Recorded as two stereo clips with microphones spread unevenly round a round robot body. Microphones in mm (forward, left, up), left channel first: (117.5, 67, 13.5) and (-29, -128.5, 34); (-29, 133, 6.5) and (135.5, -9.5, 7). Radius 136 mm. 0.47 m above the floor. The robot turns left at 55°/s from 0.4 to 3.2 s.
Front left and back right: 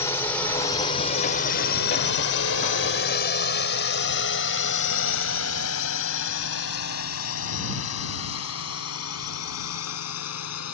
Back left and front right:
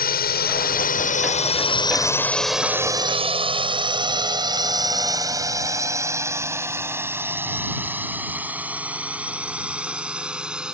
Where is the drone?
125° left; by 10.7 s 45° left.